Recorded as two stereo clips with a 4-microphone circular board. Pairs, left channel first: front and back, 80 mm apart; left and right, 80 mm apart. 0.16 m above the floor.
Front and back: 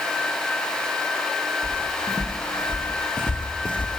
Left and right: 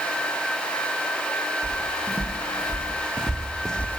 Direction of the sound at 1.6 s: 30° right.